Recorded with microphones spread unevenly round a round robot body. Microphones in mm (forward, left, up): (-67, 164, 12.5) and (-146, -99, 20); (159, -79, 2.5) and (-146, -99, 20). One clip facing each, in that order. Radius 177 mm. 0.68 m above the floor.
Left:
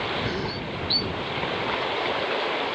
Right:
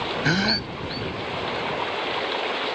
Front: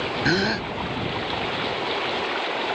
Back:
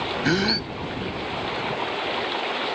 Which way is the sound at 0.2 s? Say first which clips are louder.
Right 4 dB, back 1 dB; 100° right.